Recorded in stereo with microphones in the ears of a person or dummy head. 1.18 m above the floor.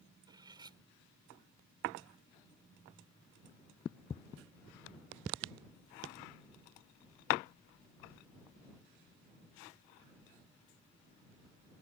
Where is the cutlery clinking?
20° right (ahead or behind).